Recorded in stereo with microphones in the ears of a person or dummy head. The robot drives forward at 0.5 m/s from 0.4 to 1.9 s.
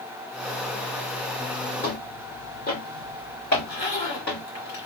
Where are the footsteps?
30° left (ahead or behind), 1.7 m; by 4.5 s 55° left (ahead or behind), 3 m.